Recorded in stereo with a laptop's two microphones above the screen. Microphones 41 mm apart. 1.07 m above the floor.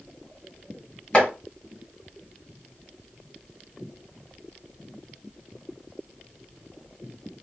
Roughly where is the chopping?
Left.